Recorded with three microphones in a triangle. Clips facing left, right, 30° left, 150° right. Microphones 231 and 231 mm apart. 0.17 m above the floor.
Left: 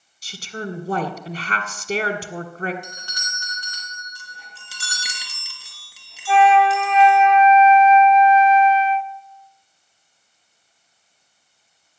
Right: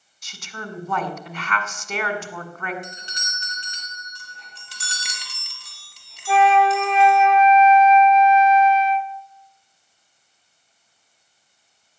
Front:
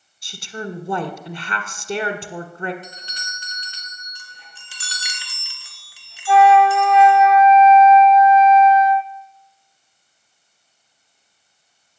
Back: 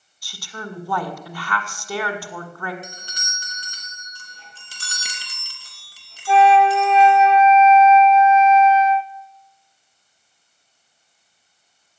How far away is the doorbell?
About 2.5 m.